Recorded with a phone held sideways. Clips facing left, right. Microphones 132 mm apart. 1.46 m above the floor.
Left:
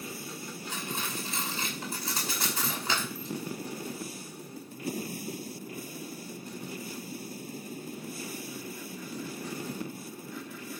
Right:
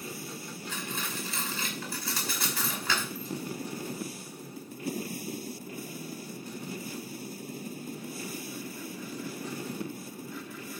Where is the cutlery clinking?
20° left (ahead or behind), 5.5 m.